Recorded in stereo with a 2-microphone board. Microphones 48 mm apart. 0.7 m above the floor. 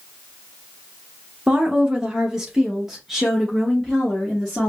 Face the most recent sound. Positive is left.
turn(degrees=5)  # may be behind; listen again after turning